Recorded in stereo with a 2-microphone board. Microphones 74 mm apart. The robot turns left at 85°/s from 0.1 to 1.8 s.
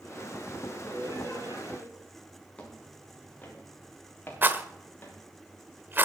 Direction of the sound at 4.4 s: 30° right (ahead or behind).